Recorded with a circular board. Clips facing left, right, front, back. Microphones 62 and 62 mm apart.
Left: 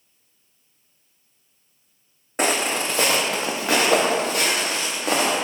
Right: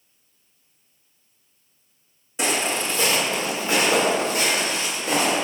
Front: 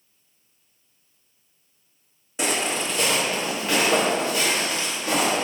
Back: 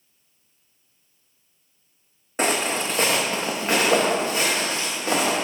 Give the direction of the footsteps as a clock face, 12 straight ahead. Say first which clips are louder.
Left 2 dB, back 2 dB; 8 o'clock.